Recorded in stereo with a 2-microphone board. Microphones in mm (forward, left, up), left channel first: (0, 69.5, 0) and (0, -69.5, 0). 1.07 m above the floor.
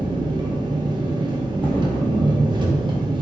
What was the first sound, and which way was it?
An engine running, 35° right (ahead or behind).